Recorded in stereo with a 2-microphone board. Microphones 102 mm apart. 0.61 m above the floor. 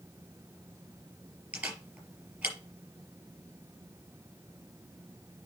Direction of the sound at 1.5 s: 10° right (ahead or behind).